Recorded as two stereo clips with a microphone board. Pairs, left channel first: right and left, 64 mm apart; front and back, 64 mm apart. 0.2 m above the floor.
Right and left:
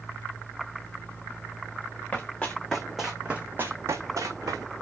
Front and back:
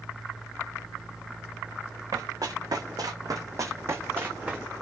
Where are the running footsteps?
160° right, 1.2 m; by 4.6 s 110° left, 1.0 m.